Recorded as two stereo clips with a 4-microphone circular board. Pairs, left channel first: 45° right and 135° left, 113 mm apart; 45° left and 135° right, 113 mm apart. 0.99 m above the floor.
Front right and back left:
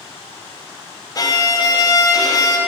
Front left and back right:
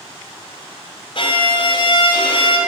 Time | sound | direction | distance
1.1 | a violin | 10° left | 2.5 m